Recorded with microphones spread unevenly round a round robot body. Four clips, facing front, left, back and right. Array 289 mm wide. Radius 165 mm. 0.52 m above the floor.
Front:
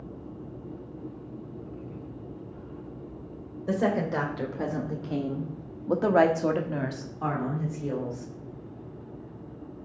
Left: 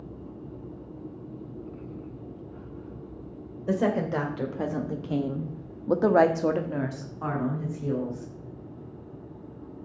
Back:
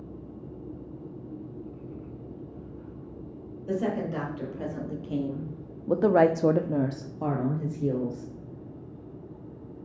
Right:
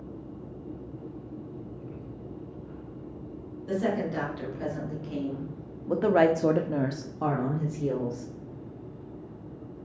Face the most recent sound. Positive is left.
turn(degrees=-135)